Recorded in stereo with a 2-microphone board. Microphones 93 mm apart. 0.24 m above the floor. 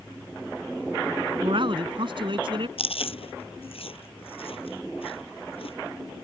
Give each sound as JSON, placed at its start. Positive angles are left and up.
{"t": 1.4, "sound": "a man speaking", "side_deg": -65}
{"t": 2.8, "sound": "chewing", "side_deg": 80}